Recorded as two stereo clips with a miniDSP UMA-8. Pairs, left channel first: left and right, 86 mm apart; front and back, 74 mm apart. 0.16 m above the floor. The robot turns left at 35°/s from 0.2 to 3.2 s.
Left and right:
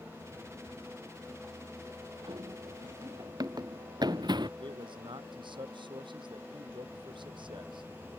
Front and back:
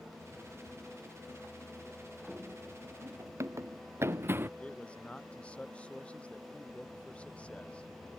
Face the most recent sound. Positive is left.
turn(degrees=-75)